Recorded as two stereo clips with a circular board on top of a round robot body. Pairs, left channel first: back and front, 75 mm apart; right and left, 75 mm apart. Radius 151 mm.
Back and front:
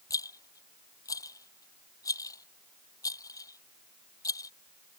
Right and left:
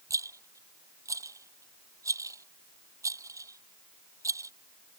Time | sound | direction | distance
0.1 | a rattle | 140° left | ?